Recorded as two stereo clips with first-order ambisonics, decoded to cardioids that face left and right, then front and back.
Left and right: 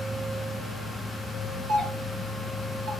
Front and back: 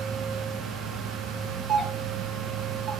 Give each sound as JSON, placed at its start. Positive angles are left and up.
{"t": 1.7, "sound": "a doorbell", "azimuth_deg": -120, "distance_m": 3.0}